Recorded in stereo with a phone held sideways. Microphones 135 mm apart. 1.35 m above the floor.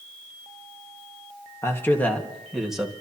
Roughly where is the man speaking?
Left.